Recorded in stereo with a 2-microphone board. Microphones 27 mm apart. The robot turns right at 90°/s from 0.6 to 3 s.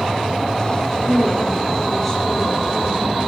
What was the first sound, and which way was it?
A woman speaking, 85° left.